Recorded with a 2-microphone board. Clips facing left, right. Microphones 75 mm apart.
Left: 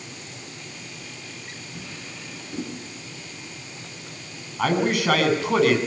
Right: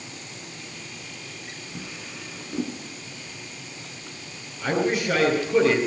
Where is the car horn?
I don't hear a car horn.